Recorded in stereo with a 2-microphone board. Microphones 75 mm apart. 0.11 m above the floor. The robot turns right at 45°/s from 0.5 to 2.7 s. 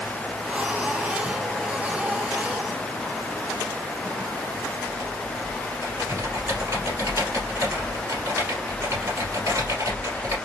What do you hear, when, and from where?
4.9 s typing on a keyboard: 45° right (ahead or behind), 2.5 m